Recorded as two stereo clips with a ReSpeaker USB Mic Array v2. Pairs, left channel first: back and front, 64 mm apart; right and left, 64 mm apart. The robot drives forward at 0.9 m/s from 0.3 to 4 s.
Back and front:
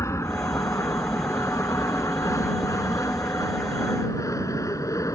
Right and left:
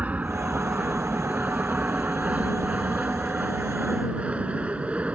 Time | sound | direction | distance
0.0 | an aircraft | 155° left | ?